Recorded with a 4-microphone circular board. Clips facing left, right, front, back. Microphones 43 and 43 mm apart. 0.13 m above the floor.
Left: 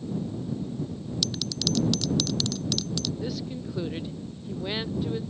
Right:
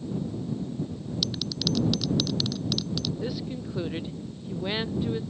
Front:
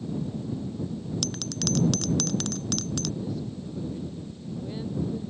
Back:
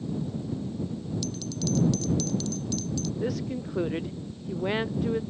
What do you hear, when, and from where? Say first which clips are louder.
1.2 s a bell: even, front 1 dB; 5° right
3.2 s a woman speaking: even, back 4 dB; 170° right